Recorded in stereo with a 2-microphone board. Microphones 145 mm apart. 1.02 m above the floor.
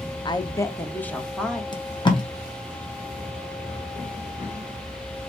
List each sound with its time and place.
0.2 s a woman speaking: 30° left (ahead or behind), 0.5 m; by 1.6 s 5° left (ahead or behind), 1.1 m
1.7 s tape being pulled: 35° left (ahead or behind), 1.0 m